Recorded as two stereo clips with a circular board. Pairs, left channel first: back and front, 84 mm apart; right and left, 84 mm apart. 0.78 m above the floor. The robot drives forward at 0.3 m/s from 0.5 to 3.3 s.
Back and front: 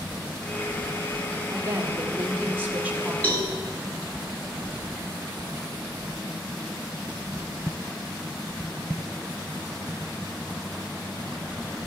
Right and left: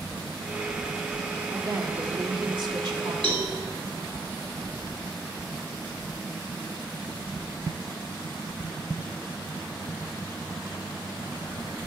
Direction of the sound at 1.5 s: 55° left.